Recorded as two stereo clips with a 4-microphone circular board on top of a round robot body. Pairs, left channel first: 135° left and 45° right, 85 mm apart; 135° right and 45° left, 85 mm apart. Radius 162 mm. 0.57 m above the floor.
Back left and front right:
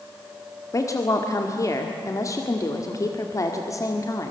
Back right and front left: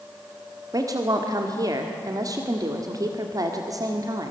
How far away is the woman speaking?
About 1.9 m.